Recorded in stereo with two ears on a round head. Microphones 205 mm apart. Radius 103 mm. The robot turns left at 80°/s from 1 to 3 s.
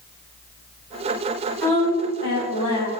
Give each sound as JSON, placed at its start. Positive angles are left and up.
{"t": 1.6, "sound": "a woman speaking", "azimuth_deg": 175, "distance_m": 3.5}